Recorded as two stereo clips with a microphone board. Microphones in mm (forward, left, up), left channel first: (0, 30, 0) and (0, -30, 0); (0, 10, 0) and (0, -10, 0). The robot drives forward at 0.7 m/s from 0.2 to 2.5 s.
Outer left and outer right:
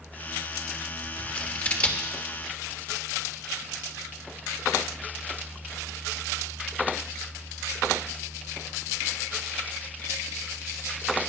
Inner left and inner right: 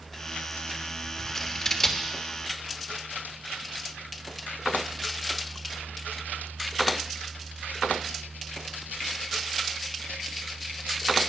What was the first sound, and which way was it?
Scissors, 20° left (ahead or behind).